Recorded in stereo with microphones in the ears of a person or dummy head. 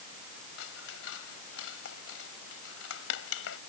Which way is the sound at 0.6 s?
80° left.